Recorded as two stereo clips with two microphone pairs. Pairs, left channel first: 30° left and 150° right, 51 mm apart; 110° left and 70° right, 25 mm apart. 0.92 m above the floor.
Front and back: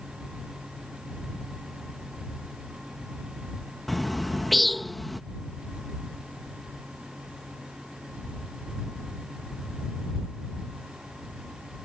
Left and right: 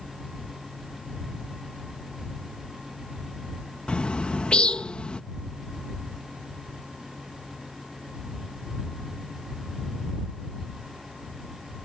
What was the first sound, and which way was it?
A bird, 120° left.